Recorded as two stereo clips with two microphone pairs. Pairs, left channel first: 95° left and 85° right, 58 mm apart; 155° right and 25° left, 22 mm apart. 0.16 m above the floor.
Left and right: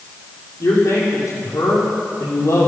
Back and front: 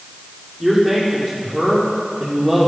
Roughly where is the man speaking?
Behind left.